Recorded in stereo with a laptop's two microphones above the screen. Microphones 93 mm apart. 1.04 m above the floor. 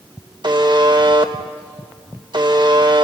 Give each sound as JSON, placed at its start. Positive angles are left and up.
{"t": 0.4, "sound": "a buzzer", "side_deg": -50, "distance_m": 1.0}